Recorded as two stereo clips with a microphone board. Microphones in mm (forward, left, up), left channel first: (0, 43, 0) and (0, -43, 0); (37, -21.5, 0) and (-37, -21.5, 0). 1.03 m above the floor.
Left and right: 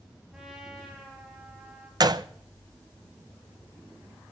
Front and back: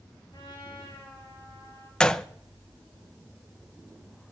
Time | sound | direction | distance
0.3 | a trumpet | 10° right | 6.5 m
2.0 | a gunshot | 75° right | 0.6 m